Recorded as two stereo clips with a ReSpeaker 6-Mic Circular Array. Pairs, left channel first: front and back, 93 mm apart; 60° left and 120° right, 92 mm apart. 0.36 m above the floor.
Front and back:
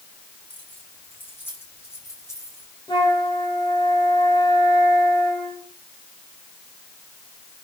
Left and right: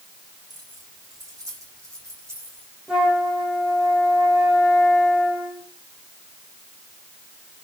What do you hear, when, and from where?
0.5 s keys jangling: 75° right, 9.5 m; by 2.7 s 55° right, 10.5 m
2.9 s a flute: 35° right, 10 m